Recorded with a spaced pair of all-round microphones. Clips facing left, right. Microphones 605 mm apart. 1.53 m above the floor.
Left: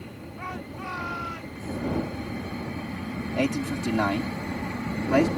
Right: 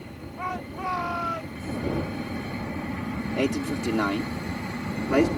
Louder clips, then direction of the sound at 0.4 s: Right 3 dB; 80° right.